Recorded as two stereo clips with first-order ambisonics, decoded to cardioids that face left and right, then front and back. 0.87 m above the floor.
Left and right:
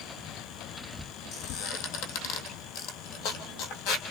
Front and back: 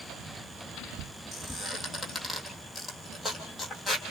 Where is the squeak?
95° left, 3 m.